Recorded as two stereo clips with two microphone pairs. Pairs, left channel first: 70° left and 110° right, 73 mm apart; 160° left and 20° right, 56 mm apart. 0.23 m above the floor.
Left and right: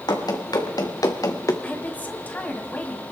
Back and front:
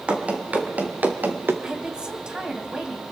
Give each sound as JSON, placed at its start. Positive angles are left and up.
{"t": 0.1, "sound": "running footsteps", "azimuth_deg": 45, "distance_m": 2.5}
{"t": 1.6, "sound": "a woman speaking", "azimuth_deg": 35, "distance_m": 1.5}